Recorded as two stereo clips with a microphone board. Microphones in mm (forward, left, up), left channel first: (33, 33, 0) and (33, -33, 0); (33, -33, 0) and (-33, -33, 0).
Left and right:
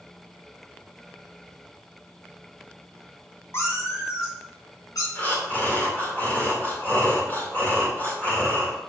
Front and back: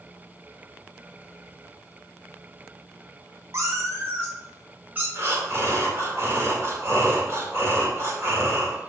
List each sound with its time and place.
3.5 s a cat meowing: 140° left, 2 m; by 5.0 s 115° left, 3.5 m
5.2 s breathing: 145° left, 2.0 m